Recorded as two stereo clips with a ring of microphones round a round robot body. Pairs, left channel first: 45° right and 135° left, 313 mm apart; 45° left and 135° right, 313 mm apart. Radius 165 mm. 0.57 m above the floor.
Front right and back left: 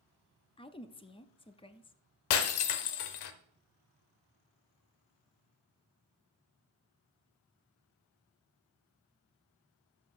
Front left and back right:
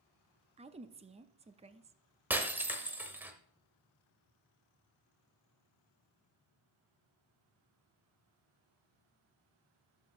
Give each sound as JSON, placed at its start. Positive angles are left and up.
{"t": 0.6, "sound": "a woman speaking", "azimuth_deg": -95, "distance_m": 0.6}
{"t": 2.3, "sound": "breaking glass", "azimuth_deg": -50, "distance_m": 0.9}